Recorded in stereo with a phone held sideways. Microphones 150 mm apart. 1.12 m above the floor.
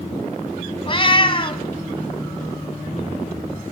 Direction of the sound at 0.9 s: 40° left (ahead or behind).